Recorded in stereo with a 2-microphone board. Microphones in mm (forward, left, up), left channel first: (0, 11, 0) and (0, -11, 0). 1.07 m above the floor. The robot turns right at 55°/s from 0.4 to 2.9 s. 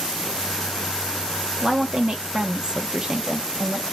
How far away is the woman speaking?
About 0.6 m.